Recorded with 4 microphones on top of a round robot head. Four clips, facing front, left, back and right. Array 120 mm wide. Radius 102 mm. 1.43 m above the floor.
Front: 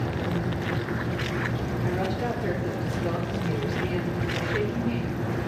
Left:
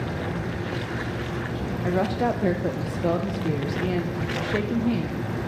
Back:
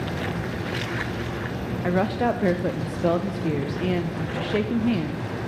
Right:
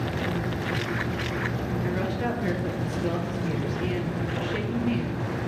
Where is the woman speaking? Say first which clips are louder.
Left 7 dB, back 7 dB; 150° left, 0.5 m.